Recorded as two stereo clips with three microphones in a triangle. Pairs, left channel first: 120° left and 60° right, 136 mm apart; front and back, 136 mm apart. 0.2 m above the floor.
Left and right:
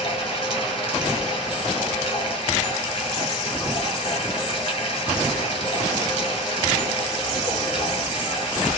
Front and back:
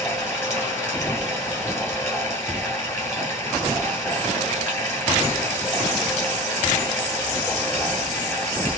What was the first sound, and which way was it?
Running water, 75° left.